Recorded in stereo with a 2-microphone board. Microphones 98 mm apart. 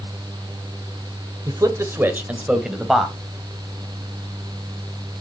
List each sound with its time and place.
1.5 s a man speaking: 40° right (ahead or behind), 1.4 m; by 3.1 s centre (ahead or behind), 2.5 m